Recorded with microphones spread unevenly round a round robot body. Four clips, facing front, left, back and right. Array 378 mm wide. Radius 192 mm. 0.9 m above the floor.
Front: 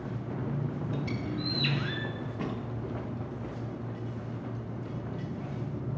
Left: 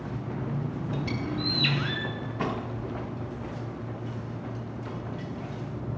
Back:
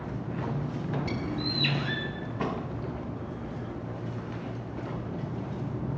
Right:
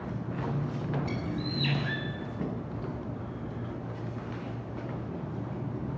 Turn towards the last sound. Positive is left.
turn(degrees=125)